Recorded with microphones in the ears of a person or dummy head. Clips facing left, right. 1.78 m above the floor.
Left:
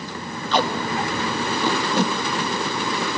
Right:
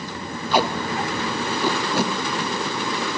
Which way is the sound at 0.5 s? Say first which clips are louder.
Even; 5° right (ahead or behind).